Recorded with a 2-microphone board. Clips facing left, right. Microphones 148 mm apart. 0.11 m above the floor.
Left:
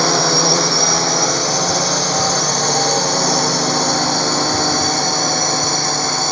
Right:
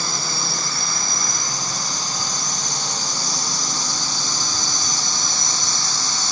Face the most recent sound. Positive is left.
turn(degrees=60)  # may be behind; listen again after turning